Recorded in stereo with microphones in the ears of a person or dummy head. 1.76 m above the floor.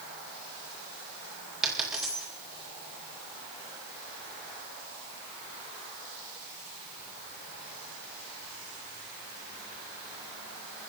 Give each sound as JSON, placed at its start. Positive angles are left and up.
{"t": 1.6, "sound": "a dropped coin", "side_deg": -5, "distance_m": 1.2}